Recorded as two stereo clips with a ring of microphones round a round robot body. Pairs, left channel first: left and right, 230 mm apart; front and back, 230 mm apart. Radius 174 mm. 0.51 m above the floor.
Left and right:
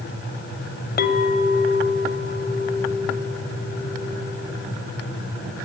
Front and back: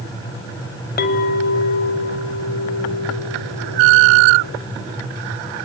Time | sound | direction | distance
1.0 | a clink | 45° left | 1.5 m